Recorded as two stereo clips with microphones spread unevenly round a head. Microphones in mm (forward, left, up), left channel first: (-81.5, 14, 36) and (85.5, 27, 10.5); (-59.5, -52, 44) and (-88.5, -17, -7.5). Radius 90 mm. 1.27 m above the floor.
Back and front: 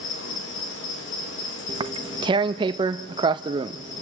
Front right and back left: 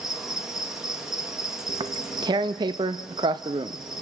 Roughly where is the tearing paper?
Ahead left.